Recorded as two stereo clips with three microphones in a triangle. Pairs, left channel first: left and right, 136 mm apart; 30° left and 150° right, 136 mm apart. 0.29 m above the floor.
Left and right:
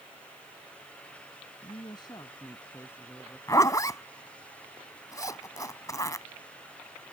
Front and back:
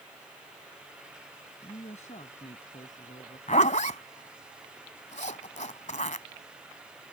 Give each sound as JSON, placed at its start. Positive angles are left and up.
{"t": 1.6, "sound": "a woman speaking", "azimuth_deg": 50}
{"t": 3.5, "sound": "a zipper", "azimuth_deg": 30}